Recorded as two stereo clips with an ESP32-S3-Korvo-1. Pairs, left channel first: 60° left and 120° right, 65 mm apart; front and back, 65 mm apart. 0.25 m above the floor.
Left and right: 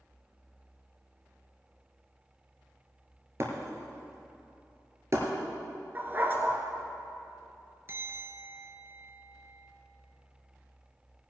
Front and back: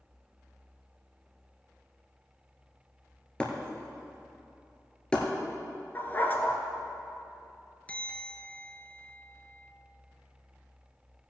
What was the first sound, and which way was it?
Breaking glass, 75° right.